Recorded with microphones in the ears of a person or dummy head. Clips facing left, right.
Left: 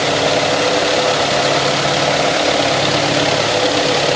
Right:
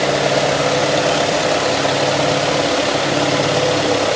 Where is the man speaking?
No man speaking in this recording.